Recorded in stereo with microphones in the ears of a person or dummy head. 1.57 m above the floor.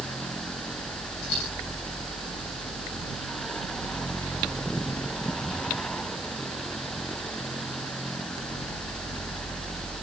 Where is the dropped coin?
70° left (ahead or behind), 8 m.